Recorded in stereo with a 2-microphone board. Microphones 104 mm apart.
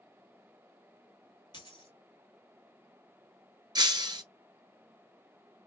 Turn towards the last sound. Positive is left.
turn(degrees=-45)  # may be behind; listen again after turning